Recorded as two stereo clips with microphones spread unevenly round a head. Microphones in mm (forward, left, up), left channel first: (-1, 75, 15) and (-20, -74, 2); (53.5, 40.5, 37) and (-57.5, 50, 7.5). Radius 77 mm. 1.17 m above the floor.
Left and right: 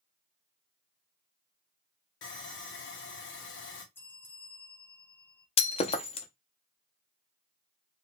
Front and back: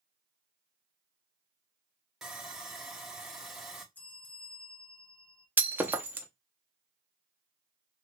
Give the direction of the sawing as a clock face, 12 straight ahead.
9 o'clock.